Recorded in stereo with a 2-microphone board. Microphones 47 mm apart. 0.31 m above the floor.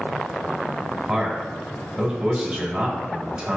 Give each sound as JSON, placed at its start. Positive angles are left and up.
{"t": 1.1, "sound": "a man speaking", "side_deg": -10, "distance_m": 1.2}